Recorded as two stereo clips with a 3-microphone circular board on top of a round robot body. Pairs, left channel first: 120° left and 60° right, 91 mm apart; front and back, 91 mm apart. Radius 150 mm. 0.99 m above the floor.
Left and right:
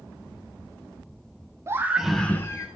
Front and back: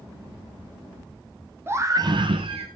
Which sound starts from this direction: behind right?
A scream, at 1.7 s.